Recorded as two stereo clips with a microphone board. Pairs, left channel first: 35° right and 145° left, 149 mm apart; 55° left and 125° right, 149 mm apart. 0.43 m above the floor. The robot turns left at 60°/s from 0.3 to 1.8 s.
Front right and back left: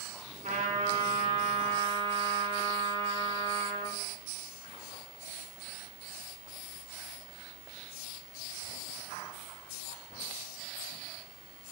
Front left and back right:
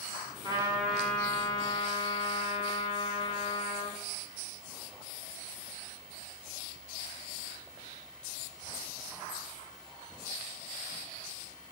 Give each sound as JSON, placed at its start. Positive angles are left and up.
{"t": 0.4, "sound": "a trumpet", "azimuth_deg": 175, "distance_m": 4.0}